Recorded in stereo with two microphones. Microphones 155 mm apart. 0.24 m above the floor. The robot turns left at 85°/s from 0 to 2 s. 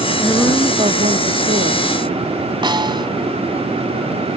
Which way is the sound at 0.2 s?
15° left.